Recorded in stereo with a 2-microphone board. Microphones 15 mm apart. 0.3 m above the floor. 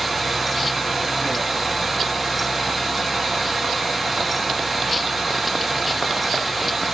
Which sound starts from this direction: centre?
Running water, at 0.0 s.